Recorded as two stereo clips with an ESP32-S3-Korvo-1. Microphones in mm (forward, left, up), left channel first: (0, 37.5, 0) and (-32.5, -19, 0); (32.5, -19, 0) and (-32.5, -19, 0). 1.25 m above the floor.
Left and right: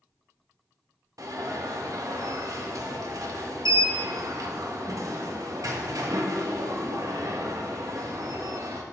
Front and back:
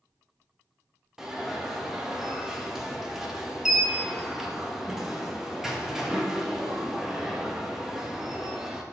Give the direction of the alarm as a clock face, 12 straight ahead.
3 o'clock.